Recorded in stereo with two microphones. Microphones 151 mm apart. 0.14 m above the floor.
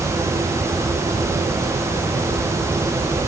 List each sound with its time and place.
Only background noise.